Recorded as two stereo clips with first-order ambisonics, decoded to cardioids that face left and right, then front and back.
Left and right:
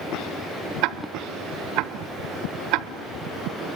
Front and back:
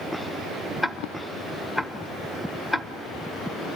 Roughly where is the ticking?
Right.